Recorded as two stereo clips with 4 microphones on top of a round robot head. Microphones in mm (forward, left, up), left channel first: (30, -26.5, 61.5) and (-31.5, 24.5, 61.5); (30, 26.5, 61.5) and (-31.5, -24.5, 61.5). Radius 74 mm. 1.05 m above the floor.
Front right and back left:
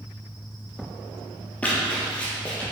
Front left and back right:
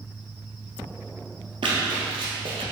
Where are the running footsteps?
115° right, 1.6 m.